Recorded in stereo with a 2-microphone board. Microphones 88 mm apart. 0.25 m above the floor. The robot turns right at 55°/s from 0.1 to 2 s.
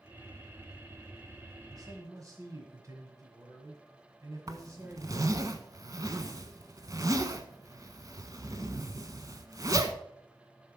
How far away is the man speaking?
About 1.6 m.